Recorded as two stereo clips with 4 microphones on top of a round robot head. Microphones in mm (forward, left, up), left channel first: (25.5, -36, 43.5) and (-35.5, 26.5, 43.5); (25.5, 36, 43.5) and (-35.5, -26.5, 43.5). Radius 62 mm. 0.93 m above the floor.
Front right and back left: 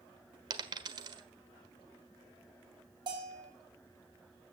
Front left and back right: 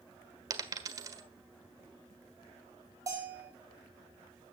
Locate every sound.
0.5 s a dropped coin: 175° left, 1.5 m
3.1 s a bell: 170° left, 6.5 m